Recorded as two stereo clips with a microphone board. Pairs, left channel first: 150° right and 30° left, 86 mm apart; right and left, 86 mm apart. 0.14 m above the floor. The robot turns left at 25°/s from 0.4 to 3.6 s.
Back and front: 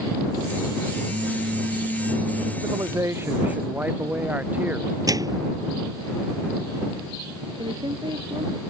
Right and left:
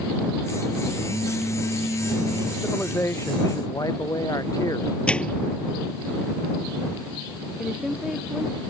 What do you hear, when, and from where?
1.1 s a phone buzzing: 5° left; by 2.5 s 30° right
2.6 s a man speaking: 20° right; by 5.0 s 45° right
5.1 s a microwave: 15° right
7.6 s a woman speaking: 5° left